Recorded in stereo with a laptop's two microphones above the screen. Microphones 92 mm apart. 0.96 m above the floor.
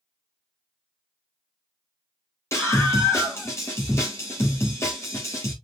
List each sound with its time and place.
2.5 s a scream: 30° left (ahead or behind), 2.0 m